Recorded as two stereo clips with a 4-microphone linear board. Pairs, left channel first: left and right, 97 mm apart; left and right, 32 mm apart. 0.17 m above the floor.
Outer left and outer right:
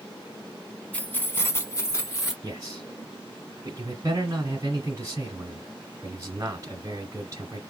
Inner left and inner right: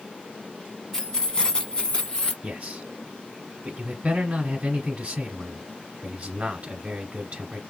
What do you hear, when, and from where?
0.9 s keys jangling: 15° left (ahead or behind), 1.0 m; by 2.3 s 30° left (ahead or behind), 1.3 m
2.4 s a man speaking: 35° right (ahead or behind), 1.3 m